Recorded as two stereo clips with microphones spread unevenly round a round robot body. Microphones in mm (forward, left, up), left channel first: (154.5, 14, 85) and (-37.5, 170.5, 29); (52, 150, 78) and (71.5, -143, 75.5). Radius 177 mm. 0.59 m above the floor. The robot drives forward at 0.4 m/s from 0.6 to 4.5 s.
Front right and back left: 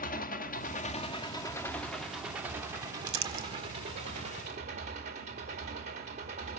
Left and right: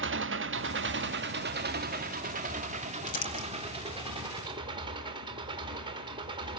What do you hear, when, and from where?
0.0 s an engine running: 95° right, 0.9 m; by 6.6 s 160° right, 1.9 m
3.1 s crumpling: 160° left, 2 m